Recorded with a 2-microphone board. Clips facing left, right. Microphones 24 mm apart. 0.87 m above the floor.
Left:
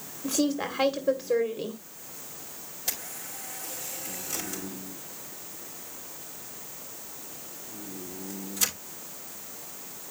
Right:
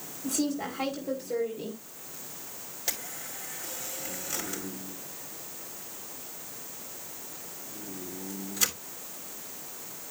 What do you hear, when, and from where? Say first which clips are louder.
0.2 s a woman speaking: left 3 dB; 45° left (ahead or behind), 2.0 m
2.9 s a camera shutter: even; 15° right (ahead or behind), 4 m